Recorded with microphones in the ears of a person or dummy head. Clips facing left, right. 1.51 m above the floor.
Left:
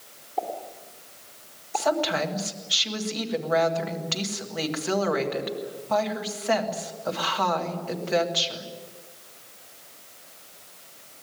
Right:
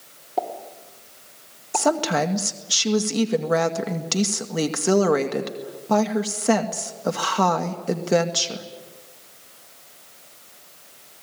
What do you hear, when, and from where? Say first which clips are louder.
0.4 s a pop: right 3 dB; 60° right (ahead or behind), 3 m
1.7 s a woman speaking: right 3 dB; 55° right (ahead or behind), 1.8 m